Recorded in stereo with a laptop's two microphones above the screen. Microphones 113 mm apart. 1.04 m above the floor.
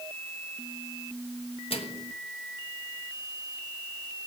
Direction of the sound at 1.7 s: 60° left (ahead or behind).